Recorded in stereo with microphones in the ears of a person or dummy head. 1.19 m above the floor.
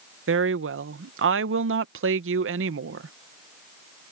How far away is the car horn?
I don't hear a car horn.